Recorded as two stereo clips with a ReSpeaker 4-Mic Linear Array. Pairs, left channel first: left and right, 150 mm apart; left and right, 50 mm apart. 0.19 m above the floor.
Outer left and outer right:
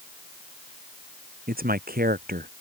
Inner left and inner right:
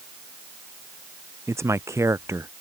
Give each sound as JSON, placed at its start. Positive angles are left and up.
{"t": 1.5, "sound": "a man speaking", "side_deg": -75}